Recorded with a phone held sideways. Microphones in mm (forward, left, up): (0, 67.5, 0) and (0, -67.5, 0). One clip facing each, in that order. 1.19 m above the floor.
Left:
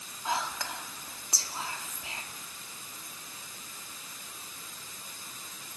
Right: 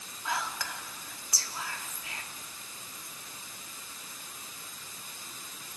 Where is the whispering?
25° left (ahead or behind), 2 m.